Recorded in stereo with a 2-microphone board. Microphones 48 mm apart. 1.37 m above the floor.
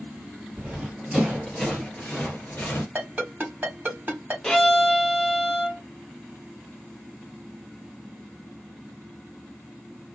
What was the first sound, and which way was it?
Running footsteps, 10° right (ahead or behind).